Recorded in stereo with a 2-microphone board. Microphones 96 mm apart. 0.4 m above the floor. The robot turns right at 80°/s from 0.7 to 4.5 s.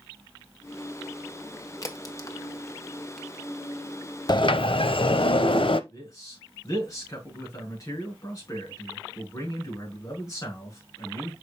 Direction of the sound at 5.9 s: 35° left (ahead or behind).